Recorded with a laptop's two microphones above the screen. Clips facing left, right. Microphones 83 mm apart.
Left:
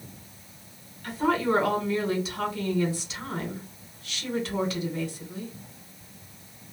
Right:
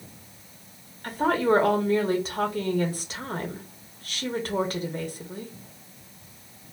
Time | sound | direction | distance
1.0 | a woman speaking | 40° right (ahead or behind) | 0.7 m